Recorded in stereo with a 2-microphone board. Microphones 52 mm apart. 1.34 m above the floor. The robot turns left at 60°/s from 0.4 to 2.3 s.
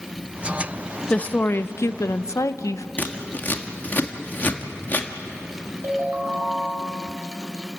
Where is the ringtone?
55° right (ahead or behind), 5.5 m.